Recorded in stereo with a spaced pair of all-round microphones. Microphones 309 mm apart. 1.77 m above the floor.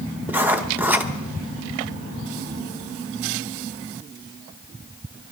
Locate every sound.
0.3 s writing: 5° right (ahead or behind), 1.0 m